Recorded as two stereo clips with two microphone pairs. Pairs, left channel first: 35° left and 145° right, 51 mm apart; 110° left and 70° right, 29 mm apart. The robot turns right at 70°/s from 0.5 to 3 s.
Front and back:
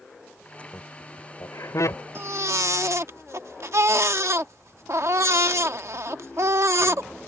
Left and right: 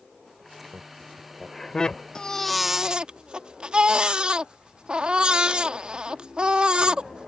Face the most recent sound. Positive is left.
turn(degrees=-125)